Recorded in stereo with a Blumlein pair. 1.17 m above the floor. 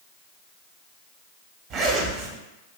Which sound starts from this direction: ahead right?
A zipper, at 1.7 s.